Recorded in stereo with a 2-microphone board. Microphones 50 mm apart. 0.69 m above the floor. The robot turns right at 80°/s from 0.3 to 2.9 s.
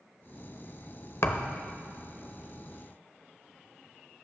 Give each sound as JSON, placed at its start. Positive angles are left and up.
{"t": 1.2, "sound": "a thud", "side_deg": 60, "distance_m": 0.8}